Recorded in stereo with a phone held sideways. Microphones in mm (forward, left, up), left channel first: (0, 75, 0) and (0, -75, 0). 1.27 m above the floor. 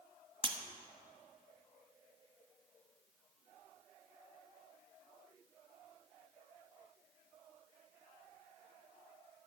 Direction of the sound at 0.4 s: 35° right (ahead or behind).